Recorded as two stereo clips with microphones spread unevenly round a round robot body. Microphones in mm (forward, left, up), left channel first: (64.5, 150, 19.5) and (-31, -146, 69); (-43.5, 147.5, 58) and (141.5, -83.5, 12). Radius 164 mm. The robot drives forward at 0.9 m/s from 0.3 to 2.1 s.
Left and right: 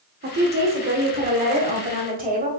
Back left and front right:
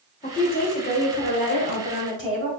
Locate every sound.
0.2 s a woman speaking: 165° right, 1.4 m; by 2.5 s 175° right, 3 m